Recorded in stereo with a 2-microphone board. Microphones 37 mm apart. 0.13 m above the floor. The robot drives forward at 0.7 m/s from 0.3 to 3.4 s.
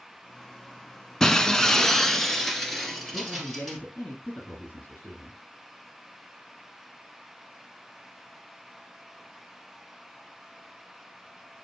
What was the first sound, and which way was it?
Breaking glass, 15° left (ahead or behind).